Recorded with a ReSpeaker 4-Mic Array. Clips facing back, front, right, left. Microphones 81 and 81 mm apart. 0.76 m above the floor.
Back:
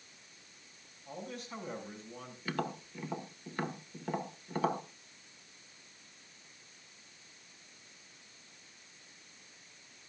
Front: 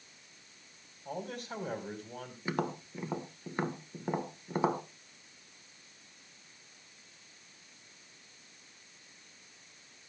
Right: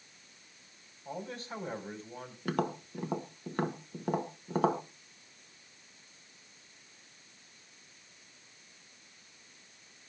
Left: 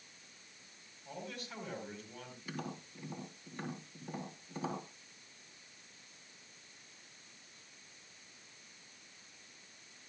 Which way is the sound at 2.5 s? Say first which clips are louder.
Front 2 dB, right 12 dB; 70° right.